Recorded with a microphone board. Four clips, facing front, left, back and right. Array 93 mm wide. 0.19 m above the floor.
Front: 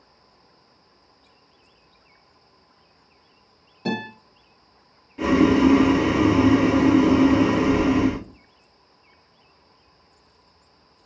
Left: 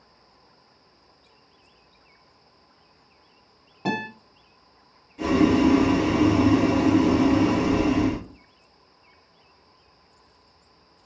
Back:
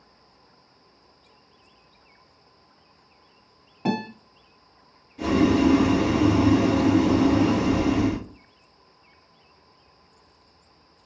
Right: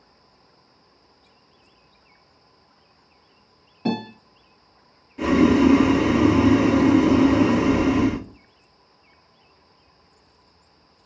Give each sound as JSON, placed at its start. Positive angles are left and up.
{"t": 3.9, "sound": "a guitar", "azimuth_deg": 150, "distance_m": 1.9}
{"t": 5.2, "sound": "boiling", "azimuth_deg": -35, "distance_m": 1.0}